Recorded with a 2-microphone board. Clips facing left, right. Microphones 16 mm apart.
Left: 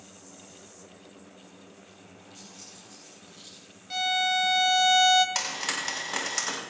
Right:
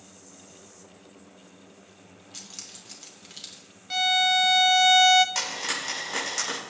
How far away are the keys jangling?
About 2.5 m.